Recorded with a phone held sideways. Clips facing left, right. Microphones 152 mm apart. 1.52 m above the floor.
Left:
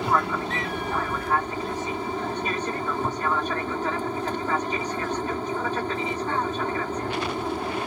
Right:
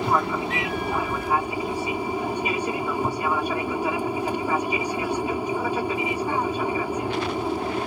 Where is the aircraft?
10° right (ahead or behind).